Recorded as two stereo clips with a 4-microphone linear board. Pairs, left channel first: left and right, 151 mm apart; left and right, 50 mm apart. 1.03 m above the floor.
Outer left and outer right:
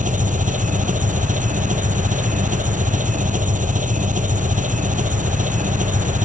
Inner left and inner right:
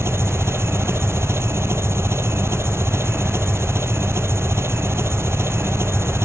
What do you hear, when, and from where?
0.0 s an engine running: 60° right (ahead or behind)